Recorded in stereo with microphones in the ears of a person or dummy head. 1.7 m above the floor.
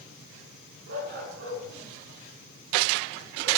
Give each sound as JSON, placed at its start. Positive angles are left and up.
{"t": 0.9, "sound": "a dog barking", "side_deg": -55, "distance_m": 9.5}